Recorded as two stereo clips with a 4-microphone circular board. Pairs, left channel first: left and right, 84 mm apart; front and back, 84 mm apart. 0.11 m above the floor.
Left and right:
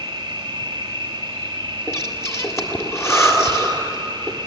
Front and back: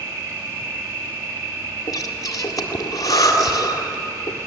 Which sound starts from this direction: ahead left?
Breathing, at 1.9 s.